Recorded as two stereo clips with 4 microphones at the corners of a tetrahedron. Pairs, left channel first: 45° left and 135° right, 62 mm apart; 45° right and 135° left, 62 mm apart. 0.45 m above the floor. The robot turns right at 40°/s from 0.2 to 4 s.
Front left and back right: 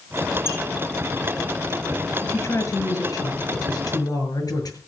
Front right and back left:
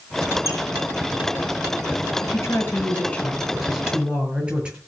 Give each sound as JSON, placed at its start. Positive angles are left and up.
{"t": 0.5, "sound": "a squeak", "azimuth_deg": -5, "distance_m": 4.0}
{"t": 2.2, "sound": "a woman speaking", "azimuth_deg": -10, "distance_m": 8.0}